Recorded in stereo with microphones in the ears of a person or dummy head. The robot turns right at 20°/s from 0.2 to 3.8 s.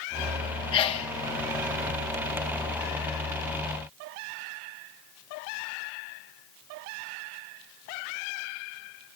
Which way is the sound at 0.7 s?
25° left (ahead or behind).